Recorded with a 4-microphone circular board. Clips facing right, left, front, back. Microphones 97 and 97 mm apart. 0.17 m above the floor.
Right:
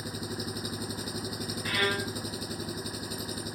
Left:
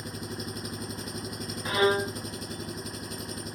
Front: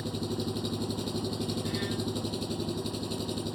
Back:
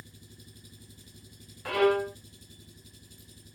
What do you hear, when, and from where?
0.0 s an engine running: straight ahead
1.6 s a violin: 155° left